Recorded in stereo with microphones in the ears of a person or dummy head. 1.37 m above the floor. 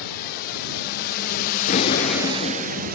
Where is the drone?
60° left (ahead or behind); by 3.0 s 50° right (ahead or behind).